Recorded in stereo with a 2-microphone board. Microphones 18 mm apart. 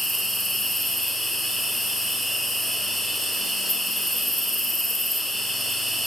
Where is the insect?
5° right (ahead or behind), 1.5 m.